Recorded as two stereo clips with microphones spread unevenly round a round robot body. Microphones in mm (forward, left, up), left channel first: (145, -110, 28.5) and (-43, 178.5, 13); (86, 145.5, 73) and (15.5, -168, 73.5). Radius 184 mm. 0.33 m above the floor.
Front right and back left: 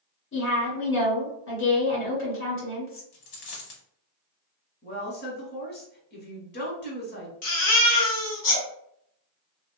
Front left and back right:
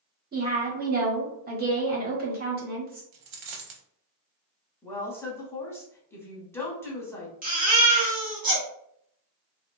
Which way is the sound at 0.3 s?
75° right.